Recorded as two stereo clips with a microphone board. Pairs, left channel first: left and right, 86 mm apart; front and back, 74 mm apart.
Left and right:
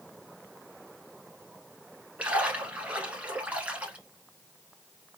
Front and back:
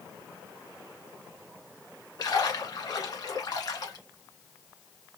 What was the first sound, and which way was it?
A splash, 20° right.